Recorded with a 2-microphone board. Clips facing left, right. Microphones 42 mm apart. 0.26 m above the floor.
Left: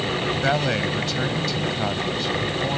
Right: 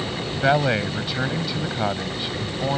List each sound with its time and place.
0.4 s a man speaking: 15° right (ahead or behind)